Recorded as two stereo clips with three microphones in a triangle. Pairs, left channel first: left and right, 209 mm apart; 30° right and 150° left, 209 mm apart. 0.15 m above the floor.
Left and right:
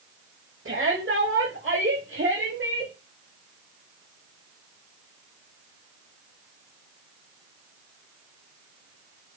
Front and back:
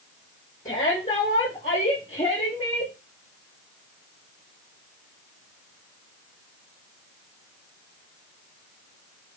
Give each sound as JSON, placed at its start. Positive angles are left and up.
{"t": 0.7, "sound": "a shout", "azimuth_deg": -80, "distance_m": 6.5}